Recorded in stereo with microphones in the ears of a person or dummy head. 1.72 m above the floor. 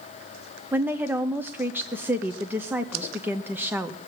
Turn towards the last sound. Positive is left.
turn(degrees=-10)  # may be behind; listen again after turning